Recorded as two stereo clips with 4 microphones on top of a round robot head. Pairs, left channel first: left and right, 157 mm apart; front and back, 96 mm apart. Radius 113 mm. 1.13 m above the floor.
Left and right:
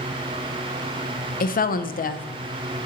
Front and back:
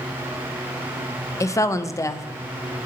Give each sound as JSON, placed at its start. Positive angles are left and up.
{"t": 1.4, "sound": "a woman speaking", "azimuth_deg": 60, "distance_m": 0.7}